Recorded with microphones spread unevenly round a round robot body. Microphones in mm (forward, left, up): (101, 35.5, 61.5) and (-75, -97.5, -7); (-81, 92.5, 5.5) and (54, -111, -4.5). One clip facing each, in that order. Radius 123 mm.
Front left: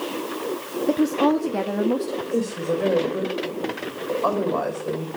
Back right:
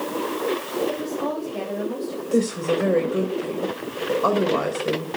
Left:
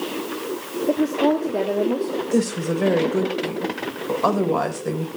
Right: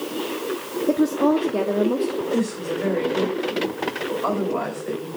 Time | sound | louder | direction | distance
0.9 | a woman speaking | front left 8 dB, right 1 dB | 20° left | 1.5 m
2.3 | a woman speaking | back right 4 dB, left 2 dB | 150° left | 3.5 m